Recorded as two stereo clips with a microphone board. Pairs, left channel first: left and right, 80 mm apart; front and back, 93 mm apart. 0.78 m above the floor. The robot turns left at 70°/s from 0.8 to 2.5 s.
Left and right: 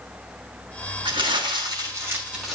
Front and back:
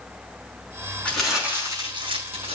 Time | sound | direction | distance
1.1 | crumpling | 75° right | 6 m